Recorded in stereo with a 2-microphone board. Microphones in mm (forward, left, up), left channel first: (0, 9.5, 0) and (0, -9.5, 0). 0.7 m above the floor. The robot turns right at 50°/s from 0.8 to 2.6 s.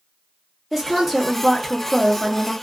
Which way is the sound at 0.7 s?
10° right (ahead or behind).